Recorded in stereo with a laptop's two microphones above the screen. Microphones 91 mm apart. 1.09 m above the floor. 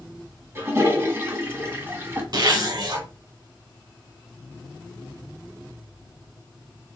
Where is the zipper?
55° right (ahead or behind), 3 m.